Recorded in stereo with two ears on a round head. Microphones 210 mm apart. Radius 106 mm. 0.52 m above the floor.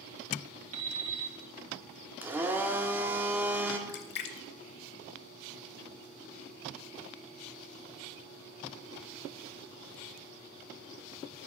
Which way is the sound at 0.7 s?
70° right (ahead or behind).